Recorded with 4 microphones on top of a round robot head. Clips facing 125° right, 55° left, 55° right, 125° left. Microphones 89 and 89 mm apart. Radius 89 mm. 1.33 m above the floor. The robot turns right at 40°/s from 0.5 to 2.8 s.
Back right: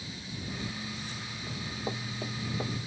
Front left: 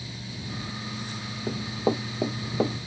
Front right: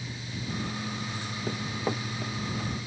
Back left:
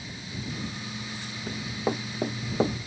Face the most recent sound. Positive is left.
turn(degrees=85)